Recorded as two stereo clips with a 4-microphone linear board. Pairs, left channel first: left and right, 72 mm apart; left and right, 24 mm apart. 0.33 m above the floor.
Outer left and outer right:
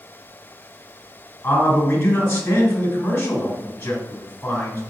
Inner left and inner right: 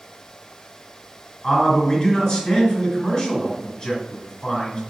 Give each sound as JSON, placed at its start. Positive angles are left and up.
{"t": 1.4, "sound": "a man speaking", "side_deg": 20, "distance_m": 1.4}